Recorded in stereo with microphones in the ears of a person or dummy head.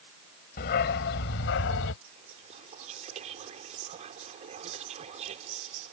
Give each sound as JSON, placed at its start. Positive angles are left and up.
{"t": 0.6, "sound": "a dog barking", "side_deg": 55}
{"t": 2.0, "sound": "whispering", "side_deg": -40}